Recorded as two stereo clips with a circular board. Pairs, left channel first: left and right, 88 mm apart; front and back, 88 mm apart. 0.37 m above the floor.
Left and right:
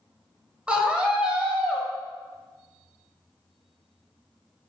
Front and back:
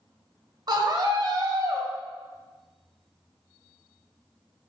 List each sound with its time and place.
0.7 s a scream: 165° right, 1.6 m